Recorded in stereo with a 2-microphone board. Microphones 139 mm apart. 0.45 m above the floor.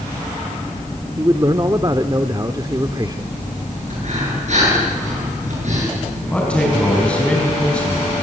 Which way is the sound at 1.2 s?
30° right (ahead or behind).